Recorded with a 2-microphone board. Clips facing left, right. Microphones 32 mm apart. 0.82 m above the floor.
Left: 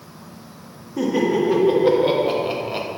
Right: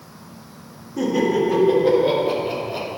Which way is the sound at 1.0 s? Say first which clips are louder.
Even; 15° left (ahead or behind).